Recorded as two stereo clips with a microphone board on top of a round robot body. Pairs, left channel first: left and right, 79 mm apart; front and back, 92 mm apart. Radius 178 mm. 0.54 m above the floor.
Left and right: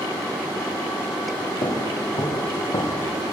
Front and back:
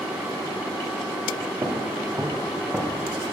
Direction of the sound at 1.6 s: 125° left.